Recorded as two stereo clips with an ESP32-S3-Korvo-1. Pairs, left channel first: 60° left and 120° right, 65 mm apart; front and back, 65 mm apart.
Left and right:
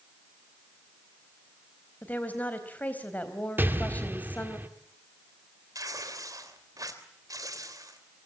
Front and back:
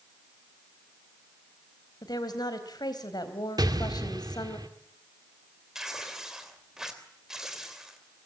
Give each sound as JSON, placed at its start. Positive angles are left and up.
{"t": 2.0, "sound": "a woman speaking", "azimuth_deg": -5, "distance_m": 3.5}
{"t": 3.6, "sound": "an explosion", "azimuth_deg": 180, "distance_m": 1.6}
{"t": 5.8, "sound": "tearing paper", "azimuth_deg": -95, "distance_m": 3.0}